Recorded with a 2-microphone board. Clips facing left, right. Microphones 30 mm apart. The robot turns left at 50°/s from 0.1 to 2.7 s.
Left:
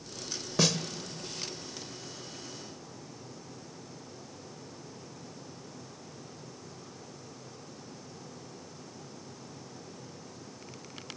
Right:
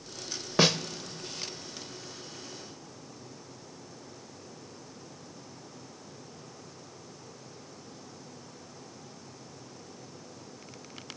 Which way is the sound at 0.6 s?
30° right (ahead or behind).